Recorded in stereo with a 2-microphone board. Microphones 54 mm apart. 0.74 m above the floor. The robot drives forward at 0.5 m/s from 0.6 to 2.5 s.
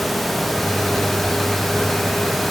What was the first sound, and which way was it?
Only background noise.